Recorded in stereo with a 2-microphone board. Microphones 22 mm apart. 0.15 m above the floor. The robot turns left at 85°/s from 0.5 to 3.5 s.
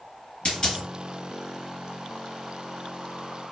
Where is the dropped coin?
40° left (ahead or behind), 1.5 m; by 0.8 s 15° left (ahead or behind), 1.5 m.